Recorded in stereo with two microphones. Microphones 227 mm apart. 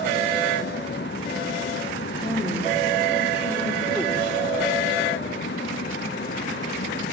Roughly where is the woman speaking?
Centre.